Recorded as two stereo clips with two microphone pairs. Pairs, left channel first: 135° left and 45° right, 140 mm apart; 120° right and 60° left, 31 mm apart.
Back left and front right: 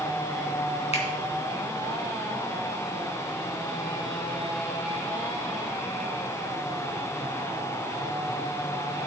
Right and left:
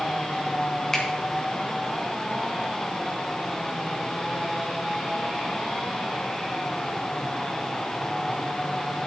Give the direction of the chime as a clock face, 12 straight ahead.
I don't hear a chime.